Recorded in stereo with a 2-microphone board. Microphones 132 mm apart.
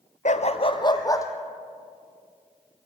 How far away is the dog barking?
About 0.9 m.